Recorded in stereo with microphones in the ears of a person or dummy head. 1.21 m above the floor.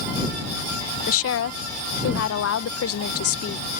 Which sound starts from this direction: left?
A woman speaking, at 1.1 s.